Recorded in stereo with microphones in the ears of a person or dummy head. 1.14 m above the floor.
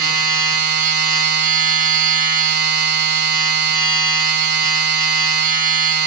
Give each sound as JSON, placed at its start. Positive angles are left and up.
{"t": 0.0, "sound": "a machine running", "side_deg": -45, "distance_m": 0.8}